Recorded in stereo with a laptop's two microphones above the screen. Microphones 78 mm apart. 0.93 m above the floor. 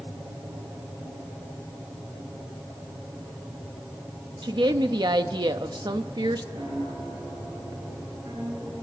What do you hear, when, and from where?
4.4 s a woman speaking: 65° right (ahead or behind), 1.1 m
6.5 s a piano: 70° right (ahead or behind), 8 m